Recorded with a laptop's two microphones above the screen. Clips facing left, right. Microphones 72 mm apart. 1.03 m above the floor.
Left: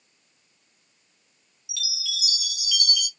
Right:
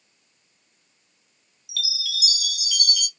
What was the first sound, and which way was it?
A chime, 55° right (ahead or behind).